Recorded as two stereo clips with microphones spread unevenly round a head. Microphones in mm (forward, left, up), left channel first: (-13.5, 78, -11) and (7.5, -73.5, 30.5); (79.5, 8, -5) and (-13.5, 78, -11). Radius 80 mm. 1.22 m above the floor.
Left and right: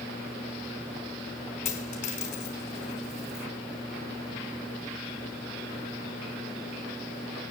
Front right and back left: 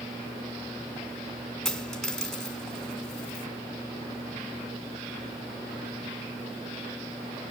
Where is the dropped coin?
50° left, 4.5 m.